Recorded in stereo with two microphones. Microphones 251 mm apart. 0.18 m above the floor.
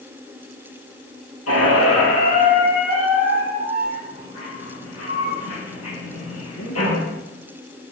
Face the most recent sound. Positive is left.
turn(degrees=75)  # may be behind; listen again after turning